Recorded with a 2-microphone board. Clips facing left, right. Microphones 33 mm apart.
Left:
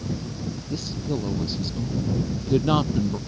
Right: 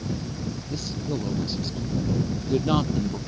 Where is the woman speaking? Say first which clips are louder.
Left 2 dB; 10° left (ahead or behind); by 3.2 s 15° left (ahead or behind).